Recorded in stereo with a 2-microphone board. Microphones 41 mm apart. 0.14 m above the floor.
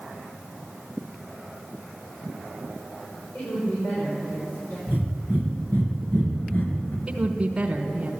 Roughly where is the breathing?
Left.